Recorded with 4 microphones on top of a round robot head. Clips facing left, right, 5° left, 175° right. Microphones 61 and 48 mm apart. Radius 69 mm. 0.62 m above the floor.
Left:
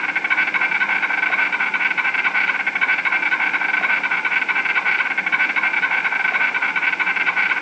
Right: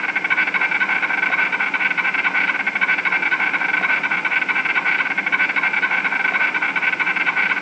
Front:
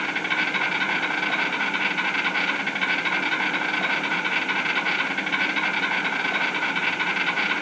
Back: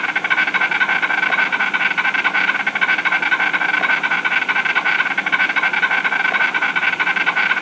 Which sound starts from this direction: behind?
An insect, at 0.0 s.